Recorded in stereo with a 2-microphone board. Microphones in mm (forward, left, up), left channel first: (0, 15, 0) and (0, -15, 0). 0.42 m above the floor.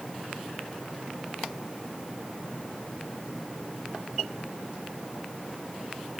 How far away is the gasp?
No gasp in this recording.